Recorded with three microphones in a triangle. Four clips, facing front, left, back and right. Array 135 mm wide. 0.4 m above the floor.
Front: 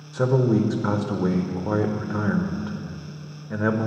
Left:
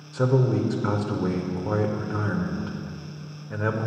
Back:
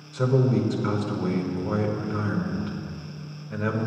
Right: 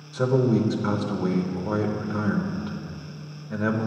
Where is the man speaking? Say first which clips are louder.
Right 1 dB, front 2 dB; 10° left, 0.8 m.